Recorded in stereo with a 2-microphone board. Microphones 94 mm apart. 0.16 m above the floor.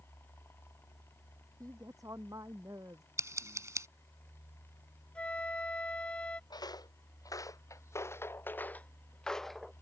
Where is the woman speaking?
35° right (ahead or behind).